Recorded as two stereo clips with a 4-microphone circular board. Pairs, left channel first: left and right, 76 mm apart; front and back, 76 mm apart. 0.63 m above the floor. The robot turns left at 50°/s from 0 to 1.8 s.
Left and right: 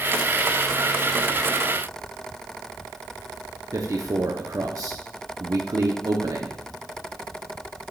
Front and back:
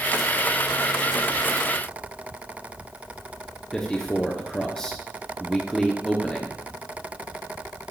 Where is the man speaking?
80° right, 0.8 m.